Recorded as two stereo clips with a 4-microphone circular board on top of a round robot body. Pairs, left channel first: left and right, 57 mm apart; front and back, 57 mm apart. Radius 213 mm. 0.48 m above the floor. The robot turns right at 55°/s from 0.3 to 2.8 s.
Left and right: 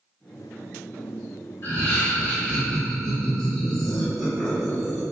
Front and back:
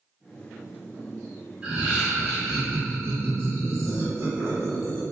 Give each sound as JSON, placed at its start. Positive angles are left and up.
{"t": 1.6, "sound": "laughter", "azimuth_deg": 105, "distance_m": 1.9}